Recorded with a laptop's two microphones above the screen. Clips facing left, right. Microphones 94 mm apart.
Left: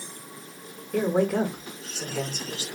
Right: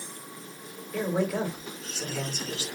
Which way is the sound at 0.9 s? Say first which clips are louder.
Left 5 dB; 45° left (ahead or behind).